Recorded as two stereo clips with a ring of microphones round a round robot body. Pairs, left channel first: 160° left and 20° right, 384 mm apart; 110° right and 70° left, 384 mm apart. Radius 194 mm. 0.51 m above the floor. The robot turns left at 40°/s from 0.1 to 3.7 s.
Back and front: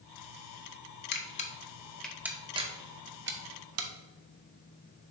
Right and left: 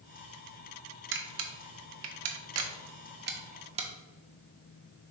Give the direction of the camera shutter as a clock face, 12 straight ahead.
8 o'clock.